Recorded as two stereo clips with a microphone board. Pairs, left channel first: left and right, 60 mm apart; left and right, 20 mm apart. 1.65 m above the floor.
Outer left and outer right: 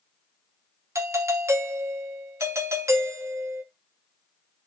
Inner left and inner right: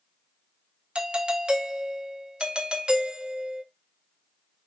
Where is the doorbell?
50° right (ahead or behind), 0.6 m.